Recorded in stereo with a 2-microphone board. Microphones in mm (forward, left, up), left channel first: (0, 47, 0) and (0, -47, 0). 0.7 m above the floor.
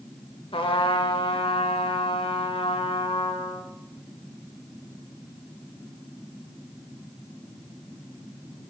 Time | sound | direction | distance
0.5 | a trumpet | 70° left (ahead or behind) | 0.7 m